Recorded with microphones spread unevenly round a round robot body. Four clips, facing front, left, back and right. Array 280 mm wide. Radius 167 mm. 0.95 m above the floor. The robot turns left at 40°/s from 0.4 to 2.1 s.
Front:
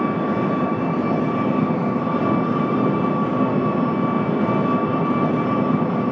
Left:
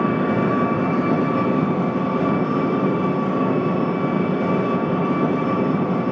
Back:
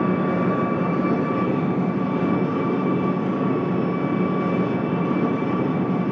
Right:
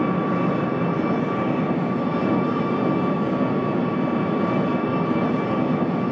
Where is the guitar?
I don't hear a guitar.